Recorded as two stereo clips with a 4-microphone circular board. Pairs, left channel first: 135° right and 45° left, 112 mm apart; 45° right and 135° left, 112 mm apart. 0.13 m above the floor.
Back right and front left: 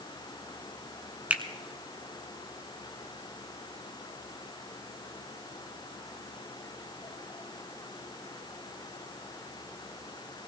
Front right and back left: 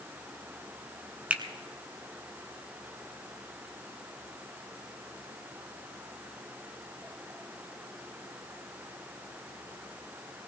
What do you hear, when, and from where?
1.3 s a finger snap: 85° left, 1.0 m